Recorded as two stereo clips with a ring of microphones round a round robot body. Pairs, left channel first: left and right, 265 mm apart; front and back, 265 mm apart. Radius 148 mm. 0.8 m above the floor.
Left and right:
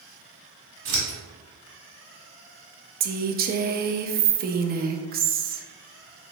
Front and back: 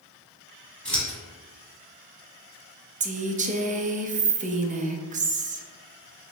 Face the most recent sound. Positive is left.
turn(degrees=-130)